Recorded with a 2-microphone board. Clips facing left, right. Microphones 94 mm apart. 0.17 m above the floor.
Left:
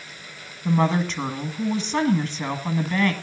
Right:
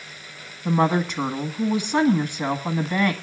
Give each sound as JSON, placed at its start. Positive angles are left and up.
{"t": 0.7, "sound": "a woman speaking", "side_deg": -15, "distance_m": 1.5}